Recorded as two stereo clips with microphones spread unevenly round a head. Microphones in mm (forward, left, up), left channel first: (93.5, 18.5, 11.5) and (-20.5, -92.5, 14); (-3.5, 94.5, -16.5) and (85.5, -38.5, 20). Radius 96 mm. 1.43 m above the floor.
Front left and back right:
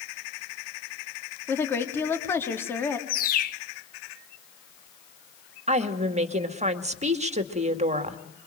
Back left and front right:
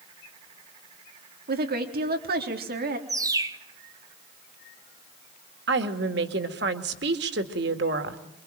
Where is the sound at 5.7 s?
90° right, 2 m.